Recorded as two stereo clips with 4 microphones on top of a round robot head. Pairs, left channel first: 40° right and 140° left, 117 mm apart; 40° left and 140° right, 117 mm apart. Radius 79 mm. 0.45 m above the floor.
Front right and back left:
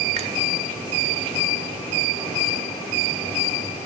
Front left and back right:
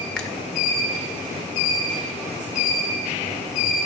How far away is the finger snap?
About 2.5 m.